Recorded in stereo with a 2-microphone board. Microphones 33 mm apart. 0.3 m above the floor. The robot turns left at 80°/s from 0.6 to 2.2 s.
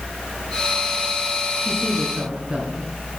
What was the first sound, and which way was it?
A woman speaking, 5° left (ahead or behind).